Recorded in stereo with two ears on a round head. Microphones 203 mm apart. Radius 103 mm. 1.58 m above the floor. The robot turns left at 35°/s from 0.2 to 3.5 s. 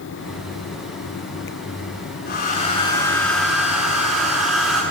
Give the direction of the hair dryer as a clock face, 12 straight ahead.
11 o'clock.